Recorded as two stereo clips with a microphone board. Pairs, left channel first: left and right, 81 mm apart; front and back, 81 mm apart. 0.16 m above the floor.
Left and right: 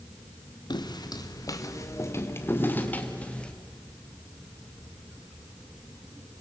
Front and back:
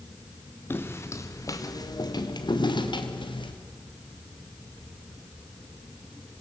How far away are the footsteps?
About 2.5 m.